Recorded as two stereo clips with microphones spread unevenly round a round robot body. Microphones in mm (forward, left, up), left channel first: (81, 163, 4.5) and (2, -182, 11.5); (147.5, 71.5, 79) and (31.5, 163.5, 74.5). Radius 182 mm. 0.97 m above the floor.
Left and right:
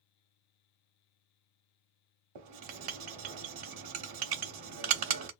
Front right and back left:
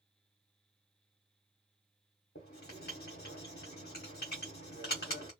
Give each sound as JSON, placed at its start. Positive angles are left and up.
{"t": 2.4, "sound": "writing", "azimuth_deg": -85, "distance_m": 0.9}